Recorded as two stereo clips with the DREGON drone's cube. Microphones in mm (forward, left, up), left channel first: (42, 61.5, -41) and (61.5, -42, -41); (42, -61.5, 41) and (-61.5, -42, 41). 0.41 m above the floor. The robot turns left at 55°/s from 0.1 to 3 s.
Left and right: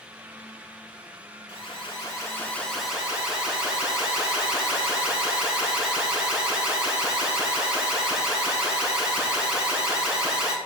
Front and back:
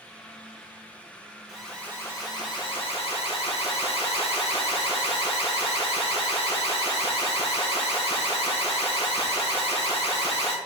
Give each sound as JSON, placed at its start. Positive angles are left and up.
{"t": 1.5, "sound": "an alarm", "azimuth_deg": 80, "distance_m": 3.0}